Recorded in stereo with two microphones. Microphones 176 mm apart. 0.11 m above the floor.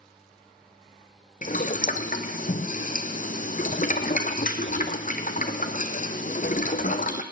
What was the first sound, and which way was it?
Boiling, 50° left (ahead or behind).